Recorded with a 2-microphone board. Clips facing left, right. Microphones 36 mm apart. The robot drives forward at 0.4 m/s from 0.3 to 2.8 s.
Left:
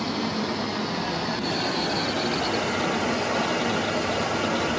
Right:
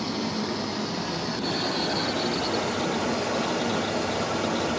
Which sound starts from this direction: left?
Running water, at 0.0 s.